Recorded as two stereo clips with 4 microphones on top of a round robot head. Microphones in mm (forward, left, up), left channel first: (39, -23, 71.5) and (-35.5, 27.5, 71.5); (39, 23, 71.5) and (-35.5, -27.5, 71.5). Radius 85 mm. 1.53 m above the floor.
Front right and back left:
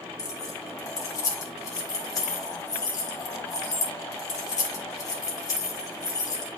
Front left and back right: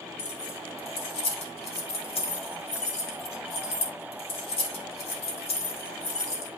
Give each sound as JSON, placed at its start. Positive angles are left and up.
{"t": 0.2, "sound": "keys jangling", "azimuth_deg": 20, "distance_m": 2.0}